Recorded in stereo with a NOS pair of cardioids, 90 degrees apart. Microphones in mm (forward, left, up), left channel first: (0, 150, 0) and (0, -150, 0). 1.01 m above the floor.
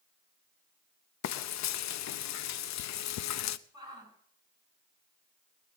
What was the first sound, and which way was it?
Frying, 65° left.